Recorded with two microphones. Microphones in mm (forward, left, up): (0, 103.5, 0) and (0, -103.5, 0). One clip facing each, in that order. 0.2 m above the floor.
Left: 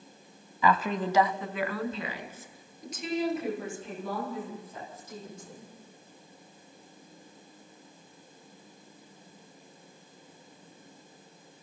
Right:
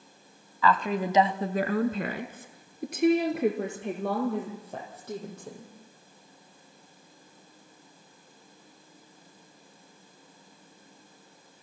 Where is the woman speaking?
20° left (ahead or behind), 1.0 m; by 5.7 s 70° right (ahead or behind), 6.5 m.